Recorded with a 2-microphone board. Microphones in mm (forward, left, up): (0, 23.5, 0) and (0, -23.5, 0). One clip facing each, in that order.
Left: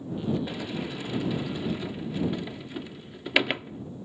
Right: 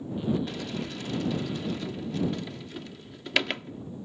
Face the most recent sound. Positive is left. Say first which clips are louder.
# left 1 dB
turn(degrees=15)  # may be behind; listen again after turning